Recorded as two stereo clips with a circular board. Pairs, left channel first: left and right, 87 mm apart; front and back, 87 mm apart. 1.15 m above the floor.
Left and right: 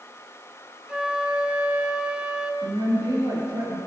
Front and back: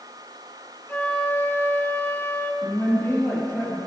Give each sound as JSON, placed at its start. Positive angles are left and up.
{"t": 0.9, "sound": "a flute", "azimuth_deg": -25, "distance_m": 0.8}
{"t": 2.6, "sound": "a woman speaking", "azimuth_deg": -60, "distance_m": 2.0}